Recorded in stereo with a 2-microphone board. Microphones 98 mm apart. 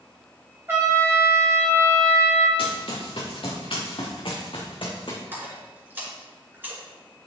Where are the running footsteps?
65° left (ahead or behind), 3.5 m; by 5.2 s 55° left (ahead or behind), 2.0 m.